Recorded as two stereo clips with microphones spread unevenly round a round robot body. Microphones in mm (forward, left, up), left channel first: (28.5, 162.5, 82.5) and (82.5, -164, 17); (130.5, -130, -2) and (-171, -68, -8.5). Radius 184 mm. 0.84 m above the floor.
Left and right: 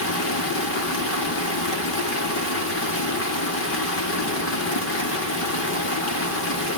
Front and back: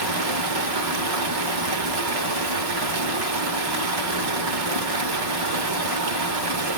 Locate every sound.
0.0 s running water: 160° left, 1.1 m